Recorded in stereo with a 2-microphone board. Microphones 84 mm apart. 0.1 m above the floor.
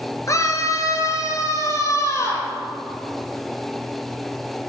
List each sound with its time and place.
0.3 s a scream: 40° left (ahead or behind), 1.5 m; by 2.5 s 35° left (ahead or behind), 2.5 m